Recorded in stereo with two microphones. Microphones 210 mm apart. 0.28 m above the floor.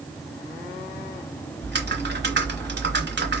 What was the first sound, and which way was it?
Typing on a keyboard, 55° right (ahead or behind).